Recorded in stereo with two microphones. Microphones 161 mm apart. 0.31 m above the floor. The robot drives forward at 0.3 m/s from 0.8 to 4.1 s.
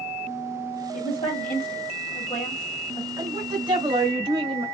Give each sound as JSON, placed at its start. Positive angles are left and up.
{"t": 0.9, "sound": "a woman speaking", "side_deg": 45, "distance_m": 1.1}
{"t": 3.2, "sound": "a woman speaking", "side_deg": -30, "distance_m": 1.4}